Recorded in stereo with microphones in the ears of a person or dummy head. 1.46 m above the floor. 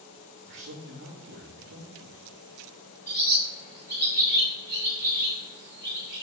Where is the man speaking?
55° right (ahead or behind), 2 m.